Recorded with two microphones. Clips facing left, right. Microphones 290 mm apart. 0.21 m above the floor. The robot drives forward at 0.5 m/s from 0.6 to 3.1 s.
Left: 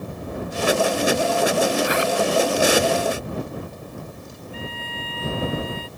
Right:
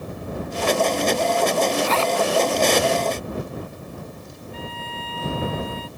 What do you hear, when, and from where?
1.8 s a zipper: 15° left (ahead or behind)
4.5 s a violin: 50° right (ahead or behind)